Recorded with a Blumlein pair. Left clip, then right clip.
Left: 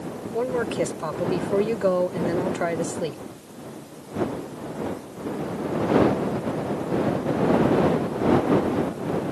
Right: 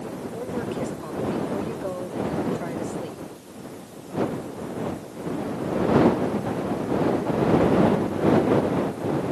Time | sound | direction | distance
0.3 | a woman speaking | 60° left | ?